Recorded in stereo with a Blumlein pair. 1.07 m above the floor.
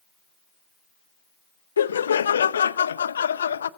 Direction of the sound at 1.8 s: 70° left.